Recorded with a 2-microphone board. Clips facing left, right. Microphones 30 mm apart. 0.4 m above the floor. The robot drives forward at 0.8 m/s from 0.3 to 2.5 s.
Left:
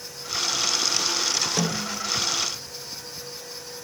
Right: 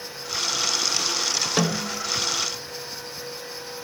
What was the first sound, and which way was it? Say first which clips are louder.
A snare drum: right 2 dB; 30° right (ahead or behind).